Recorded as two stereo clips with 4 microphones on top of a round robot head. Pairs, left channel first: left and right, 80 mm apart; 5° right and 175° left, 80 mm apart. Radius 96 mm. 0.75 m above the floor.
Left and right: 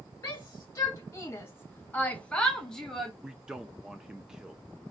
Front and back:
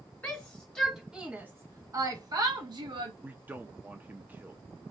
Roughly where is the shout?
Ahead left.